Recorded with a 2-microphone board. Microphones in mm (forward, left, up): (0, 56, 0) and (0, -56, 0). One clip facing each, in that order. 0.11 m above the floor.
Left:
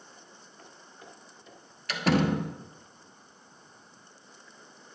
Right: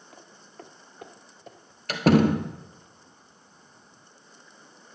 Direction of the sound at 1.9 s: 45° right (ahead or behind).